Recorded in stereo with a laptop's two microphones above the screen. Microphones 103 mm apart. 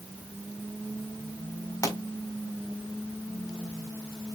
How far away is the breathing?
I don't hear breathing.